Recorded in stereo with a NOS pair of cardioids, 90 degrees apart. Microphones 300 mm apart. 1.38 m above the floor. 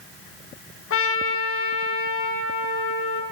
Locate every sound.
0.9 s a trumpet: 45° left, 1.2 m